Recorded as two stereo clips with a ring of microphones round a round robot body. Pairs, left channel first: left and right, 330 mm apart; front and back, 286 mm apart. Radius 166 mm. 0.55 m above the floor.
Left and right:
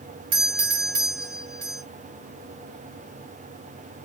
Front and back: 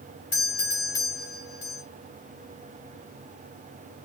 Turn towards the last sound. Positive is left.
turn(degrees=-55)